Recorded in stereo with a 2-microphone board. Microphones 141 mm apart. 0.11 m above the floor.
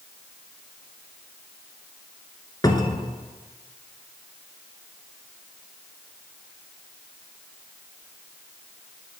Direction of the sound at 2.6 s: 30° left (ahead or behind).